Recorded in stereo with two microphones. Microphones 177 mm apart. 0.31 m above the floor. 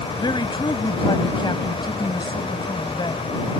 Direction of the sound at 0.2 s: 25° left (ahead or behind).